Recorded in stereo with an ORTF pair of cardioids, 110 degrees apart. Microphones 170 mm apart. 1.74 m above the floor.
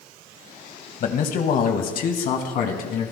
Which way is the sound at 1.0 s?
55° left.